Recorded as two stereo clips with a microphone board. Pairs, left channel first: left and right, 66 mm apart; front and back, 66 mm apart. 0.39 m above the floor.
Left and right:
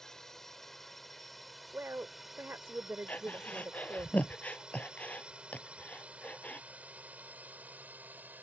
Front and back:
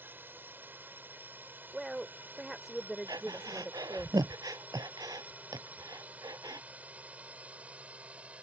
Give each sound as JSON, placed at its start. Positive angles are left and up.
{"t": 0.0, "sound": "a drone", "azimuth_deg": 170}
{"t": 1.7, "sound": "a woman speaking", "azimuth_deg": -105}
{"t": 3.1, "sound": "breathing", "azimuth_deg": 160}